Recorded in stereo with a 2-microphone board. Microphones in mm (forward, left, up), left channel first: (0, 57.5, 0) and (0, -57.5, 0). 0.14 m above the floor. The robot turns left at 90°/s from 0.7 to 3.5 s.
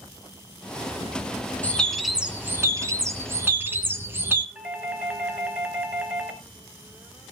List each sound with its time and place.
1.6 s a bird: 15° left (ahead or behind), 1.8 m; by 4.5 s 20° right (ahead or behind), 1.8 m
4.5 s a doorbell: 10° right (ahead or behind), 1.9 m